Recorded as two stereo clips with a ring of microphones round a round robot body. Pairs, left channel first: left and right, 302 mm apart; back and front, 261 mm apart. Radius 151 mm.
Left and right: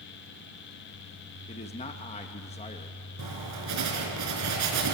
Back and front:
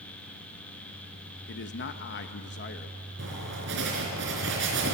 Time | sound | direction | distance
1.5 | a man speaking | 155° left | 1.0 m
3.2 | writing | 55° right | 4 m